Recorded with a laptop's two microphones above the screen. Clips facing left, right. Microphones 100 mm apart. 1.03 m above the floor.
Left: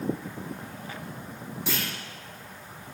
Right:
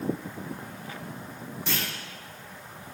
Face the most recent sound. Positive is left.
turn(degrees=5)  # may be behind; listen again after turning